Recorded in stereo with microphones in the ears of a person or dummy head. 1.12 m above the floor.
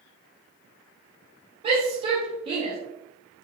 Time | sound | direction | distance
1.6 | a shout | 35° right (ahead or behind) | 4 m